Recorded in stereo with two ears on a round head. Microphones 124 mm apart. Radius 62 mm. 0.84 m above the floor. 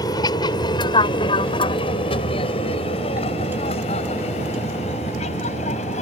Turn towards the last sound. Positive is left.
turn(degrees=50)  # may be behind; listen again after turning